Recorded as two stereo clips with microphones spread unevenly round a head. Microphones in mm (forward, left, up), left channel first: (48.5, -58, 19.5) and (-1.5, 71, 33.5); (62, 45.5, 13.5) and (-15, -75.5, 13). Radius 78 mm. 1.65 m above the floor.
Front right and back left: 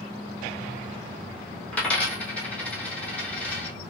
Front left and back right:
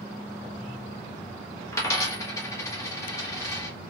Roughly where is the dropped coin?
Ahead.